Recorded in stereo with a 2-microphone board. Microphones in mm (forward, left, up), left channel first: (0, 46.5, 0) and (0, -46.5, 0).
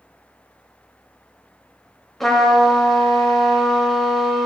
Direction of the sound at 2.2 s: Centre (ahead or behind).